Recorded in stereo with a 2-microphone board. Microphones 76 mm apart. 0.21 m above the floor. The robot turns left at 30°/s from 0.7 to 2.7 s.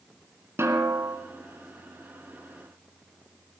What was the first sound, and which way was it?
A snare drum, 35° right (ahead or behind).